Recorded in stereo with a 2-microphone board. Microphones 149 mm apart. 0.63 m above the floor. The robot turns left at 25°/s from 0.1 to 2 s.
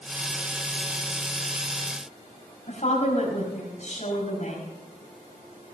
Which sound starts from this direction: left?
A woman speaking, at 2.7 s.